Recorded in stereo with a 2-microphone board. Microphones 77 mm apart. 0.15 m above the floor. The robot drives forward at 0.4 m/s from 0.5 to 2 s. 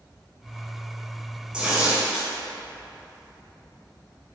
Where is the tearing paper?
15° right (ahead or behind), 1.0 m; by 2.3 s 10° right (ahead or behind), 1.1 m.